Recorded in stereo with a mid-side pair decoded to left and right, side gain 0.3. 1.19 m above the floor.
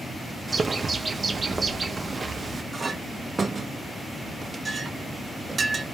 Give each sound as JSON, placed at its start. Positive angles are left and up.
{"t": 0.5, "sound": "a bird", "azimuth_deg": -45, "distance_m": 0.6}
{"t": 2.7, "sound": "a clink", "azimuth_deg": -45, "distance_m": 0.5}